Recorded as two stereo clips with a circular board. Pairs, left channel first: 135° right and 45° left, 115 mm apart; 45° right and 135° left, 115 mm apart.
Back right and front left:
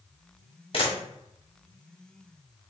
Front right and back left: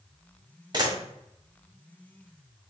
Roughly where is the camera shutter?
Behind.